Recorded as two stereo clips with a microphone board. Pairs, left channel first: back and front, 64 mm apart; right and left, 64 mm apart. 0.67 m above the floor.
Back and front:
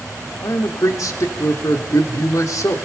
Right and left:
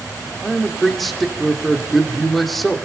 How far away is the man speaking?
About 2 m.